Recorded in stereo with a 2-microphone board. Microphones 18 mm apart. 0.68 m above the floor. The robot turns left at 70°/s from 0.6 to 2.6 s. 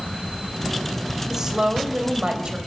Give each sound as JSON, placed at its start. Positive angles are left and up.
{"t": 1.3, "sound": "a woman speaking", "azimuth_deg": -25, "distance_m": 3.0}